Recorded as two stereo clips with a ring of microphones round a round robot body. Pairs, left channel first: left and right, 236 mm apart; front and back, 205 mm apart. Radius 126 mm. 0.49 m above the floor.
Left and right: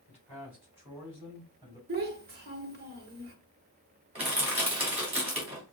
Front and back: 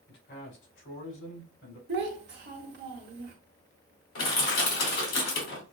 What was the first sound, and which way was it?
A man speaking, 5° right.